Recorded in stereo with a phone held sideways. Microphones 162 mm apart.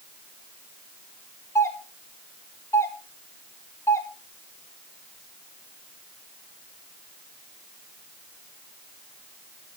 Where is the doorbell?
15° left (ahead or behind), 3 m.